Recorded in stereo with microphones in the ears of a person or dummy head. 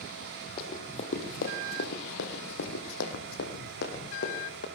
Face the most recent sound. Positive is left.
turn(degrees=65)  # may be behind; listen again after turning